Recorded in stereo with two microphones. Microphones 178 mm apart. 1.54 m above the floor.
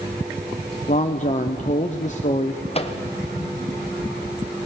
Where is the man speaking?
40° left (ahead or behind), 0.8 m.